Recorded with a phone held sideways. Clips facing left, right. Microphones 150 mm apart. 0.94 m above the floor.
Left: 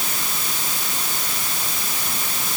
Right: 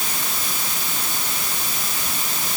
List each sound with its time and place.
Only background noise.